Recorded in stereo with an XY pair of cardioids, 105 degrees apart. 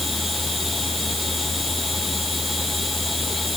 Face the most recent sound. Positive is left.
turn(degrees=15)